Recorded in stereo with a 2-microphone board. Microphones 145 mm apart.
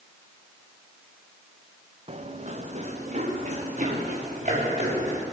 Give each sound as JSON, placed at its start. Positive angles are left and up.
{"t": 2.1, "sound": "running footsteps", "side_deg": -45, "distance_m": 2.0}